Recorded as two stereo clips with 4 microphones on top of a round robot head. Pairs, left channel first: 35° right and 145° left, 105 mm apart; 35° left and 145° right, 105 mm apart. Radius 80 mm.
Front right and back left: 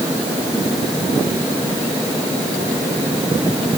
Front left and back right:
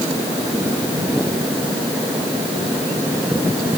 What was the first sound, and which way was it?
Only background noise.